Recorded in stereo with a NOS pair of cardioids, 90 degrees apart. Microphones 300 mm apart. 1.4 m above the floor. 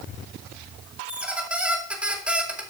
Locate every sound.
1.1 s a squeak: 5° right, 2.5 m